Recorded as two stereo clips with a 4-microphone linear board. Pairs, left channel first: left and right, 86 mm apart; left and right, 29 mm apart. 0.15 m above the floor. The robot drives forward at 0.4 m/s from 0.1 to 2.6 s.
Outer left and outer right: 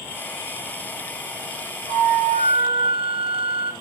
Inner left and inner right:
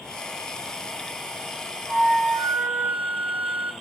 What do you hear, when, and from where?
1.9 s a flute: 80° right, 0.9 m